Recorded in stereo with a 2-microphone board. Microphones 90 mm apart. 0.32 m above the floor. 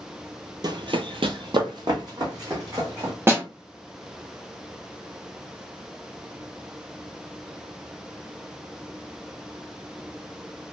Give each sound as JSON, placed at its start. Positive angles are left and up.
{"t": 0.6, "sound": "running footsteps", "side_deg": -45, "distance_m": 0.5}
{"t": 3.3, "sound": "a snare drum", "side_deg": -25, "distance_m": 1.0}